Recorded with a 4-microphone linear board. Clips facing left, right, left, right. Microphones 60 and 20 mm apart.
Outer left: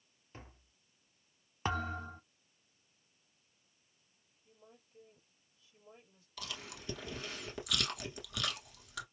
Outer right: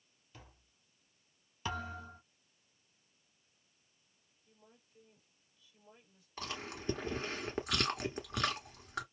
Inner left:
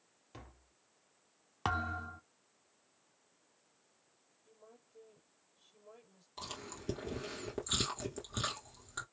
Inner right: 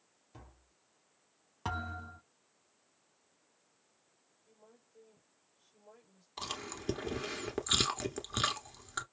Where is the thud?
40° left (ahead or behind), 1.6 m.